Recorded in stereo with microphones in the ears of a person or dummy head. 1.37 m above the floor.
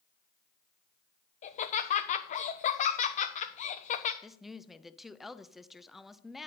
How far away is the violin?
No violin in this recording.